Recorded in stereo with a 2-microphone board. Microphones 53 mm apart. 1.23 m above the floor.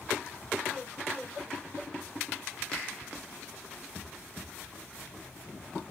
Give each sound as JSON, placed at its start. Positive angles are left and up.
{"t": 2.7, "sound": "a finger snap", "side_deg": 10, "distance_m": 4.0}